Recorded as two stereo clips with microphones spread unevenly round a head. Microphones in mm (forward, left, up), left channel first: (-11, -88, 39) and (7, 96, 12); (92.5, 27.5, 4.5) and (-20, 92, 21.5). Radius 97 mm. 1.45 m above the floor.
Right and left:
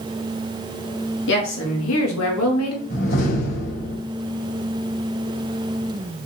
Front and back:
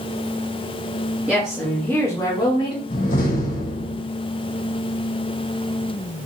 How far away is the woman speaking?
About 3 m.